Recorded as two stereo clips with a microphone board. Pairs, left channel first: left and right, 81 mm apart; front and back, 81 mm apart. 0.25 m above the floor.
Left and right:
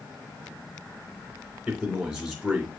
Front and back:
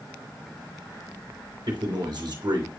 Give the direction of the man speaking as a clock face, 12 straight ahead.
6 o'clock.